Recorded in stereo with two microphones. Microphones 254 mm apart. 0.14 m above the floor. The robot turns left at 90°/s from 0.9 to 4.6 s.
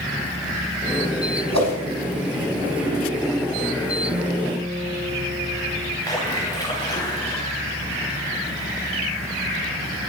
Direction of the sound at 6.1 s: 15° left (ahead or behind).